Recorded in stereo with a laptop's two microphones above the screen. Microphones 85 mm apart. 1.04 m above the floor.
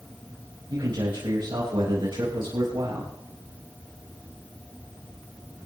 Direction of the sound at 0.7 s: 75° right (ahead or behind).